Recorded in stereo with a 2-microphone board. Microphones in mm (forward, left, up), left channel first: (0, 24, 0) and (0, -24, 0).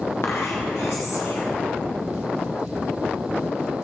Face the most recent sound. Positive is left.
turn(degrees=65)  # may be behind; listen again after turning